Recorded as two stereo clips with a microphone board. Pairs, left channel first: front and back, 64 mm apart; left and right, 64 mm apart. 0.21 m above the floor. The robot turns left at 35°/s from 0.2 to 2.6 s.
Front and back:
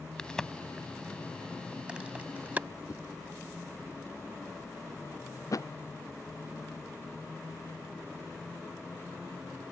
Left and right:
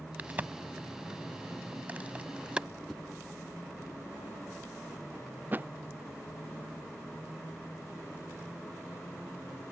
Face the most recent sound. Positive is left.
turn(degrees=-30)